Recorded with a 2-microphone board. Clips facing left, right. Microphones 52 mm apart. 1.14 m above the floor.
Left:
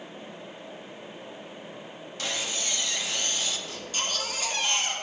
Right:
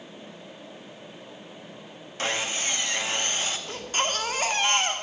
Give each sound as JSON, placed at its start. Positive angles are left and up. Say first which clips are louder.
{"t": 2.2, "sound": "sawing", "louder": "right 4 dB", "side_deg": -35, "distance_m": 1.4}
{"t": 3.7, "sound": "a baby crying", "louder": "right 5 dB", "side_deg": -40, "distance_m": 1.9}